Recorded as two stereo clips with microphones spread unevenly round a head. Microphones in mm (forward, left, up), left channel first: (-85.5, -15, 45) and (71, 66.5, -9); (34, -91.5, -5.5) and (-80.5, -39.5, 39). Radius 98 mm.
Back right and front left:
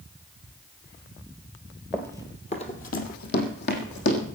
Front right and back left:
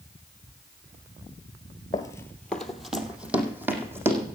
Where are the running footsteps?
95° right, 1.4 m; by 4.2 s 140° right, 3.5 m.